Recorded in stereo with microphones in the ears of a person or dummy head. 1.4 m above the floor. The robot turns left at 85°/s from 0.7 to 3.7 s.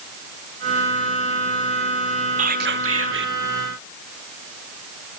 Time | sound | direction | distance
2.4 | whispering | 50° right | 0.8 m